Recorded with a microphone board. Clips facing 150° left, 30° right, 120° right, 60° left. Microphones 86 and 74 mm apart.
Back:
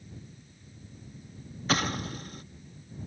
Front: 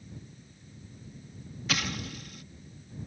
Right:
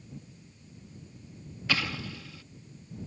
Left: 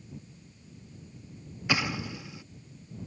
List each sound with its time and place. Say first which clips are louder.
1.7 s an explosion: back 5 dB, left 2 dB; 125° left